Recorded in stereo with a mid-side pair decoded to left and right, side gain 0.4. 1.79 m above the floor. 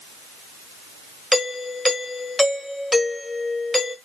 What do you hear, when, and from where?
1.3 s a doorbell: 15° left, 1.4 m